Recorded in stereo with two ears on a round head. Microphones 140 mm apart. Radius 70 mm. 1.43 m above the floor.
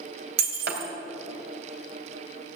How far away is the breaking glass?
About 2.5 m.